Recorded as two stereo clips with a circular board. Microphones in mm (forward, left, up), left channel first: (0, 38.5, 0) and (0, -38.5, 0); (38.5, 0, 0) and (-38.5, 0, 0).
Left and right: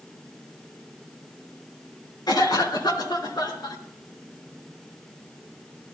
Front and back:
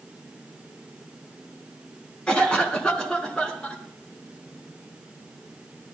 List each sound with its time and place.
2.3 s a cough: 75° left, 3 m